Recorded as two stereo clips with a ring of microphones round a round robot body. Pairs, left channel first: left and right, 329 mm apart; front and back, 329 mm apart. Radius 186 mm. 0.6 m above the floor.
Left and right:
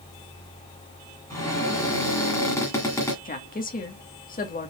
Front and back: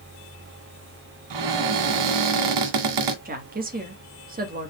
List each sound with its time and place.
1.3 s a cupboard door: 170° left, 1.7 m
3.2 s a woman speaking: 135° left, 1.4 m